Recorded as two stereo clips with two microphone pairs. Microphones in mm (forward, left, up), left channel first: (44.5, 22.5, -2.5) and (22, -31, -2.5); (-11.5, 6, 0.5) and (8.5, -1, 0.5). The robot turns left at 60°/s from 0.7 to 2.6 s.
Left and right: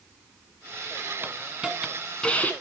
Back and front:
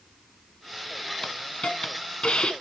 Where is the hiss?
160° right, 1.8 m; by 2.5 s 125° left, 1.8 m.